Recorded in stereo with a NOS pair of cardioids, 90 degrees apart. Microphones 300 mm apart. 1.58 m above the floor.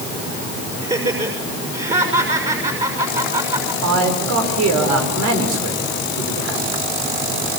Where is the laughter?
20° right, 6.5 m.